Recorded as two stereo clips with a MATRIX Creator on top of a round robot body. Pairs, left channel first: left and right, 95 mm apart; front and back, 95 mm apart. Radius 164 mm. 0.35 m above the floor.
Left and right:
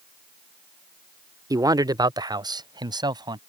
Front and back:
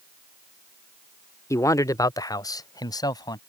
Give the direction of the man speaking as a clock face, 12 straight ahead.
2 o'clock.